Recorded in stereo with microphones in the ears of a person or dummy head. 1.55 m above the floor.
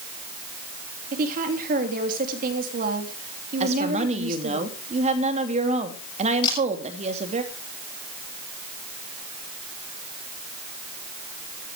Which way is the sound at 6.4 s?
25° left (ahead or behind).